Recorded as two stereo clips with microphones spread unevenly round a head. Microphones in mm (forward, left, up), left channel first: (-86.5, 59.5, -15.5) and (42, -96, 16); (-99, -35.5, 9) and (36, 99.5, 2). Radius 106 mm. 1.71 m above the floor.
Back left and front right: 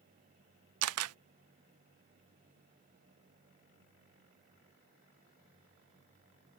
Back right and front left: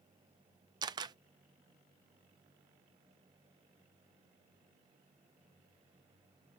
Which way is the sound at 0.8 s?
30° right.